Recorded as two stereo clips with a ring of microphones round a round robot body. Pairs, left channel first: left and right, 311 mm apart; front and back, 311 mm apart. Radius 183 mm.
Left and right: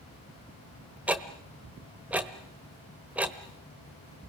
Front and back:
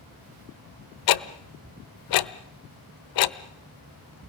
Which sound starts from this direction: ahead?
Ticking, at 1.1 s.